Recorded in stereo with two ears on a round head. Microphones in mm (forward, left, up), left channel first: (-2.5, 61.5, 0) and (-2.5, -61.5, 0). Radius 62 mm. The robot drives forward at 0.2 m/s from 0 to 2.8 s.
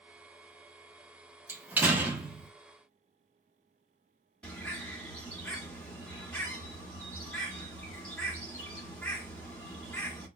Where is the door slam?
15° right (ahead or behind), 0.7 m; by 2.5 s 10° right (ahead or behind), 0.8 m.